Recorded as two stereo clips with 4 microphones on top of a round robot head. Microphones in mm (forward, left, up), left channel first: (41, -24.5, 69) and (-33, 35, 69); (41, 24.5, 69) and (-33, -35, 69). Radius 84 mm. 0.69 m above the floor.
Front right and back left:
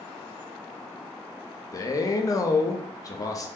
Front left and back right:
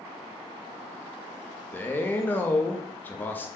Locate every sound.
1.7 s a man speaking: 20° right, 0.5 m